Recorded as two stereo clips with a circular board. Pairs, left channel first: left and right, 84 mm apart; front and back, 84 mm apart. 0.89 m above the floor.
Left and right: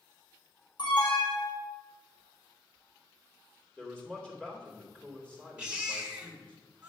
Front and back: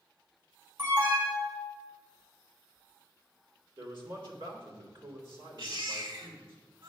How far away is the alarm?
About 4 m.